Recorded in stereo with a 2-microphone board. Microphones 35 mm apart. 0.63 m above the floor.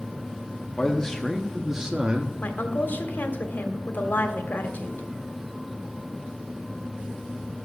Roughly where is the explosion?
No explosion in this recording.